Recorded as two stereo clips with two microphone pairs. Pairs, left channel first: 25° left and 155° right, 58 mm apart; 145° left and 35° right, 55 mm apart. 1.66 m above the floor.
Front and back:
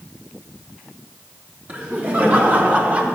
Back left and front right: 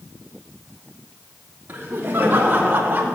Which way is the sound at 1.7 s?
95° right.